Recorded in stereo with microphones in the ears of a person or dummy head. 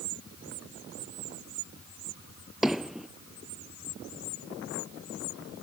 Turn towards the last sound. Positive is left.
turn(degrees=-5)  # may be behind; listen again after turning